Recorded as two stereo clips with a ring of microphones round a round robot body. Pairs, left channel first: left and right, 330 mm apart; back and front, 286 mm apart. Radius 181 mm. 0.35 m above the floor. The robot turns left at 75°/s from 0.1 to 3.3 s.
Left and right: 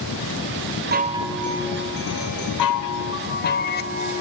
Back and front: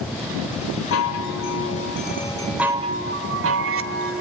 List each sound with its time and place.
0.9 s a chime: 145° right, 1.1 m; by 4.2 s 35° left, 1.1 m